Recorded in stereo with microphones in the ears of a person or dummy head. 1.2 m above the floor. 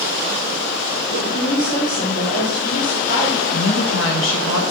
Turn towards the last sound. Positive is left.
turn(degrees=75)  # may be behind; listen again after turning